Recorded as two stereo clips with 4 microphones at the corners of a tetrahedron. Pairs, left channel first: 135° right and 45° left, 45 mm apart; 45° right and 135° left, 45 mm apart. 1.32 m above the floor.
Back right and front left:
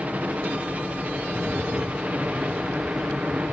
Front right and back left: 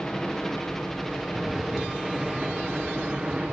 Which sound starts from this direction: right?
A rattle, at 1.3 s.